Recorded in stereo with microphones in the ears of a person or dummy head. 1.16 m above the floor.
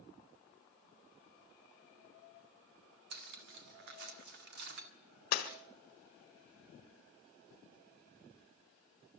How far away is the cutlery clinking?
About 1.9 m.